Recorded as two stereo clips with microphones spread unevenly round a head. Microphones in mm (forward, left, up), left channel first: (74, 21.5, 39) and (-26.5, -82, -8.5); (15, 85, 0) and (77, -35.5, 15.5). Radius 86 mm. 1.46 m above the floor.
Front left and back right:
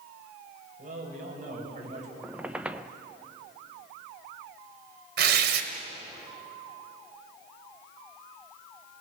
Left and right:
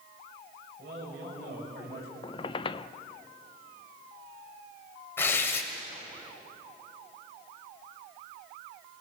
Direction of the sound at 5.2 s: 165° right.